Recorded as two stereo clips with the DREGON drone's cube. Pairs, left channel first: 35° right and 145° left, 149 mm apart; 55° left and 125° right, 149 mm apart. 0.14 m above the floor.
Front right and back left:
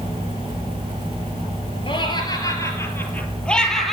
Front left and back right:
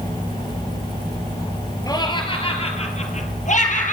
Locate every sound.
1.9 s laughter: 5° left, 2 m; by 3.9 s 55° left, 3 m